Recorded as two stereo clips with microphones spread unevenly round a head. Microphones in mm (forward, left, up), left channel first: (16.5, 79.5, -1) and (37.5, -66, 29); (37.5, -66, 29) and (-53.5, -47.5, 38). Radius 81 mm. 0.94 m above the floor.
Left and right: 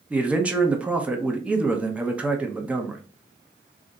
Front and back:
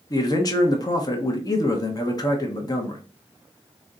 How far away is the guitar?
No guitar in this recording.